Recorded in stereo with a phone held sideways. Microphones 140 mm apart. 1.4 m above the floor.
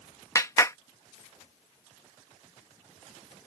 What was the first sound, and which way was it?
A clap, 25° left (ahead or behind).